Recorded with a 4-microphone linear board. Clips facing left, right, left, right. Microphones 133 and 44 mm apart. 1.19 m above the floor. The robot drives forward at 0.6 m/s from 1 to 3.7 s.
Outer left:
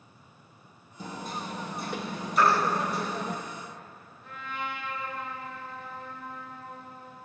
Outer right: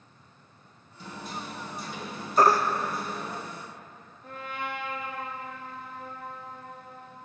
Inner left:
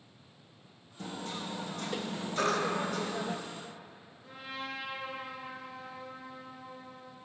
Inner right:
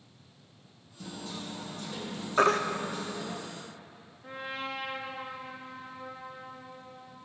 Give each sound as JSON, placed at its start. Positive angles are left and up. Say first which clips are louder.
{"t": 1.0, "sound": "hammering", "louder": "outer left 2 dB, inner left 1 dB", "side_deg": 45, "distance_m": 1.7}
{"t": 2.4, "sound": "a baby crying", "louder": "outer right 3 dB, inner right 6 dB", "side_deg": -40, "distance_m": 0.8}
{"t": 4.2, "sound": "a trumpet", "louder": "outer right 1 dB, inner right 4 dB", "side_deg": -45, "distance_m": 2.5}